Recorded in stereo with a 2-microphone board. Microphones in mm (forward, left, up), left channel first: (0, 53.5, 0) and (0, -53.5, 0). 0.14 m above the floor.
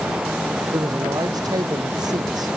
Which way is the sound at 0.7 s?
40° right (ahead or behind).